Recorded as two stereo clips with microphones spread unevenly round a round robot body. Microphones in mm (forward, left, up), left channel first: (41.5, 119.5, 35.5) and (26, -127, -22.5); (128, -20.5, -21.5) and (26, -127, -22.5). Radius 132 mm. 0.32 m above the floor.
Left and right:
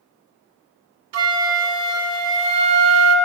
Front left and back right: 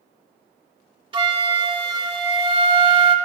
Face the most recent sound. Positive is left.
turn(degrees=-75)